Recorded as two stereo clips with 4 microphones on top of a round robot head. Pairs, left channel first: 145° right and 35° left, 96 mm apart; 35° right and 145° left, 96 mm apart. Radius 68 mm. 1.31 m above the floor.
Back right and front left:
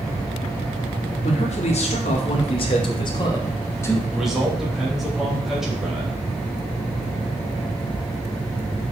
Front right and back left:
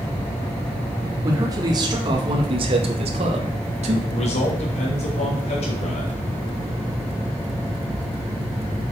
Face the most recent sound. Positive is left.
turn(degrees=-50)